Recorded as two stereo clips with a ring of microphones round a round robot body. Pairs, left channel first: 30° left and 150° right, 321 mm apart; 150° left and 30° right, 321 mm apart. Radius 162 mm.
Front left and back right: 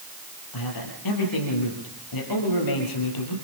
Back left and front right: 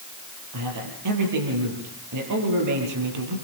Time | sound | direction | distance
0.5 | a man speaking | 5° left | 8 m